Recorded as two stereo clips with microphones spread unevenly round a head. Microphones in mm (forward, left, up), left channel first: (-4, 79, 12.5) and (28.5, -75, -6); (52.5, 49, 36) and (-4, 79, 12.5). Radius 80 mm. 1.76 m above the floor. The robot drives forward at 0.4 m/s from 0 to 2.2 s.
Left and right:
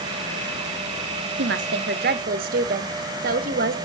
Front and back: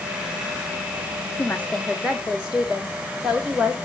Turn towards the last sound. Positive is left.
turn(degrees=-120)